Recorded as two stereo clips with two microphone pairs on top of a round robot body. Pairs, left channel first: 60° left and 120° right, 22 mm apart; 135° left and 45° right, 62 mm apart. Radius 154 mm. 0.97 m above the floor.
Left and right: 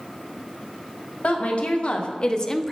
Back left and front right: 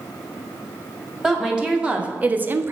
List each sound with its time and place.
1.2 s a woman speaking: 35° left, 1.8 m; by 2.7 s 15° right, 0.8 m